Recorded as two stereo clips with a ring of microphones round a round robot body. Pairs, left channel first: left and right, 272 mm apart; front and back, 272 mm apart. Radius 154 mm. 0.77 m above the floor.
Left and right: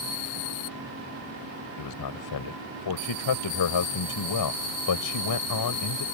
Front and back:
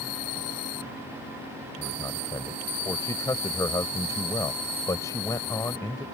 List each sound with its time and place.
1.8 s a man speaking: 80° left